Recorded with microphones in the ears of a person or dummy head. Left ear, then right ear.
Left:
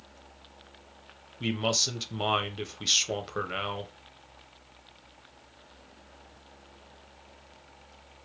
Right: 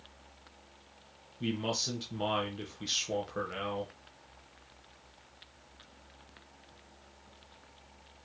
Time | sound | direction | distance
1.4 | a man speaking | 30° left (ahead or behind) | 0.6 m